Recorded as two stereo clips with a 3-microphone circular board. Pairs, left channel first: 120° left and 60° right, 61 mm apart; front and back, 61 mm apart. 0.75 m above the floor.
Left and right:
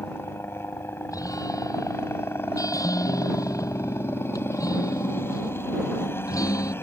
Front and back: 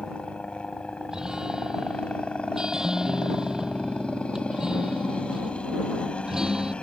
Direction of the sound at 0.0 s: 70° left.